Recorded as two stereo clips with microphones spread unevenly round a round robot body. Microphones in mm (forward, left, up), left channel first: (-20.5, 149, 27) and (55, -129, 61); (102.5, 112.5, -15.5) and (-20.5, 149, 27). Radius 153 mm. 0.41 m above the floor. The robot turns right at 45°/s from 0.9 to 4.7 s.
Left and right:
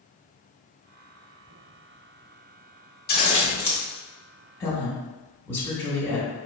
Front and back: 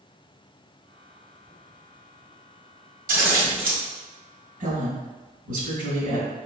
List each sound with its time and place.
3.1 s scissors: 155° left, 1.2 m; by 3.8 s 175° right, 1.2 m
4.6 s a woman speaking: 175° left, 1.6 m; by 6.3 s straight behind, 1.6 m